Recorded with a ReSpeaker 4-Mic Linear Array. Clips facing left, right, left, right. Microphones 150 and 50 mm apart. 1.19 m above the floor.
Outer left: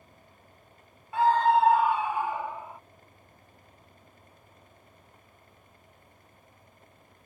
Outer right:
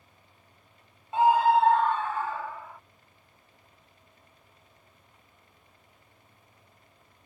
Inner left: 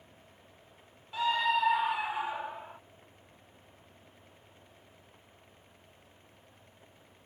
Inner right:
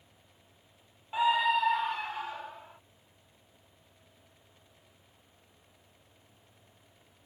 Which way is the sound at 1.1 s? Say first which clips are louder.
Outer right 1 dB, inner right 2 dB; 25° right (ahead or behind).